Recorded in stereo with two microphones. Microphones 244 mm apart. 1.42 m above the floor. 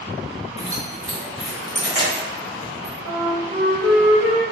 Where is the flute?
30° right (ahead or behind), 1.4 m.